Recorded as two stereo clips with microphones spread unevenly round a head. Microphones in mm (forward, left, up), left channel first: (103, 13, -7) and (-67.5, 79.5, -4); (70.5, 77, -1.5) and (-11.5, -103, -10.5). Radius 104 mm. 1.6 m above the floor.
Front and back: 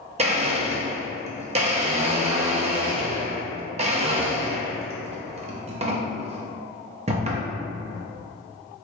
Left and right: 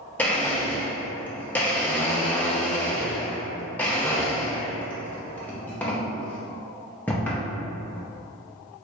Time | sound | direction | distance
0.2 | a blender | 140° left | 0.7 m